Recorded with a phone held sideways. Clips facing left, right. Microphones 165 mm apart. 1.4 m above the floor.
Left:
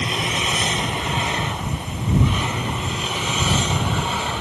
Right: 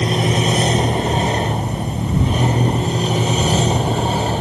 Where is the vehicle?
35° right (ahead or behind).